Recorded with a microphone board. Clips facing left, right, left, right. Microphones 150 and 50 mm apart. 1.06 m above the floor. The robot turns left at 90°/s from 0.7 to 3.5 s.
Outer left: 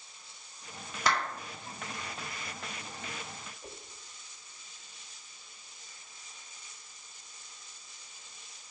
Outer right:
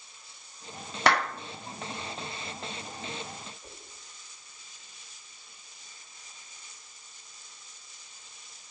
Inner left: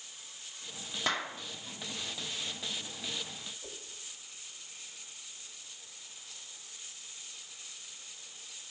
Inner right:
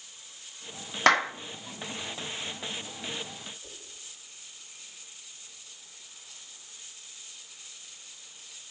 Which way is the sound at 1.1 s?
65° right (ahead or behind).